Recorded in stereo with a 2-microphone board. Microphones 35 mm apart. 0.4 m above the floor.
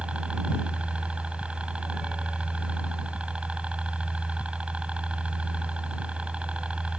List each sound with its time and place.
0.0 s a helicopter: 35° right (ahead or behind)